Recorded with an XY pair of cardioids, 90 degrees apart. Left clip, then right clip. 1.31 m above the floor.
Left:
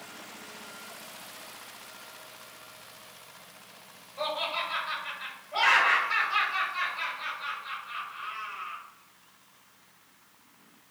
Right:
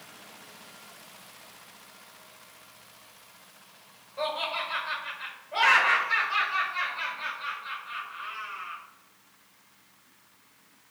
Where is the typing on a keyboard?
I don't hear typing on a keyboard.